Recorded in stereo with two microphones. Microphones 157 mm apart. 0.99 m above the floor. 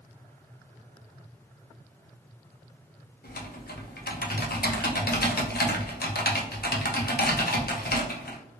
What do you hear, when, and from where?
3.2 s typing on a keyboard: 75° left (ahead or behind), 0.7 m